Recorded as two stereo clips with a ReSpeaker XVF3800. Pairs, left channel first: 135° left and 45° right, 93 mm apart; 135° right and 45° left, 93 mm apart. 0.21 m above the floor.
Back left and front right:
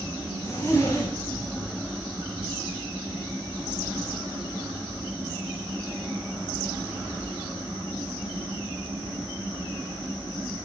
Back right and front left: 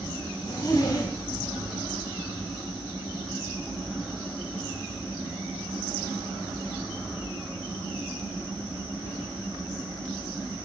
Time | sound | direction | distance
0.4 | a zipper | 175° right | 3.5 m